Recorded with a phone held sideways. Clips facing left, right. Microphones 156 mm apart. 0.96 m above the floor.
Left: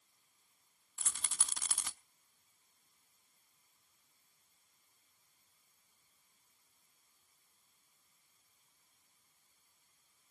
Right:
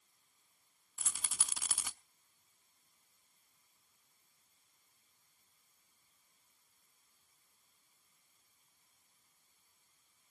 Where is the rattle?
5° right (ahead or behind), 0.7 m.